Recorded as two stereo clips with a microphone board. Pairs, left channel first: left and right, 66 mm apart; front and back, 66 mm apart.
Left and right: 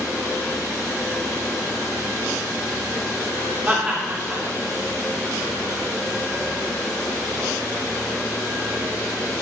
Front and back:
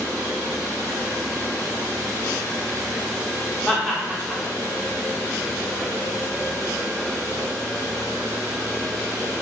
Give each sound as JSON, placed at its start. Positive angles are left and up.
{"t": 3.7, "sound": "laughter", "azimuth_deg": -75, "distance_m": 0.7}